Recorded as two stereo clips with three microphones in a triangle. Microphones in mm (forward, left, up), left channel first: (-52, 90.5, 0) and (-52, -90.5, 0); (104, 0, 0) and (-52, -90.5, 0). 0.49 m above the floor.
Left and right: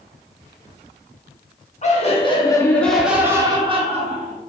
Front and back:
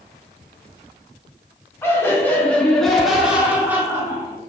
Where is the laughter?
100° left, 0.9 m; by 4.4 s 80° right, 1.0 m.